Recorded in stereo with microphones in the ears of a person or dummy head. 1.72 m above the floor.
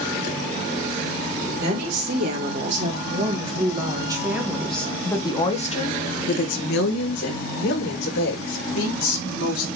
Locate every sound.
1.5 s a woman speaking: 45° right (ahead or behind), 3.5 m; by 9.7 s 85° left, 4 m